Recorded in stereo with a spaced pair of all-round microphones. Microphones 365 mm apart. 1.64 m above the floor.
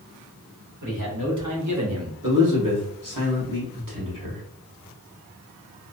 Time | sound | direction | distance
0.8 | a man speaking | 55° right (ahead or behind) | 1.6 m
2.2 | a man speaking | 60° right (ahead or behind) | 1.2 m